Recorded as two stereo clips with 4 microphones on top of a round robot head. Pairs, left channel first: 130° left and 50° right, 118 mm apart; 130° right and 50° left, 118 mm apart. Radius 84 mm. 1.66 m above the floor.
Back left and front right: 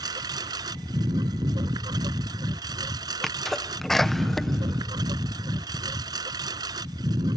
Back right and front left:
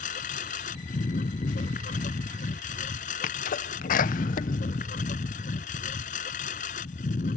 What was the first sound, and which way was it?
A lawn mower, 110° right.